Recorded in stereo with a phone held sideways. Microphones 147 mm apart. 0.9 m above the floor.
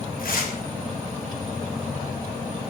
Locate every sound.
0.2 s tearing paper: 75° left (ahead or behind), 3 m